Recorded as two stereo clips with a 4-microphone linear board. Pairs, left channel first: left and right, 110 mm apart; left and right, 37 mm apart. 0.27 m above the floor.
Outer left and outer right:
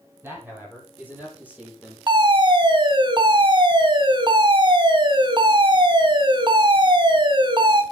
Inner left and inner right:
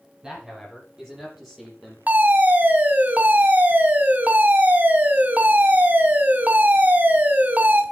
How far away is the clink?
No clink in this recording.